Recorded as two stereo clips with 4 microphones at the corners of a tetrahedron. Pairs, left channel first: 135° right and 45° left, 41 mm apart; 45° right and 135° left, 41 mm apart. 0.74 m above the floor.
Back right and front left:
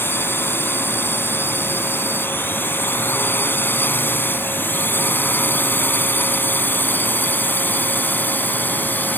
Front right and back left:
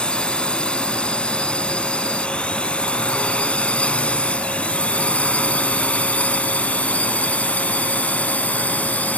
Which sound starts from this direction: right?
A drone, at 0.0 s.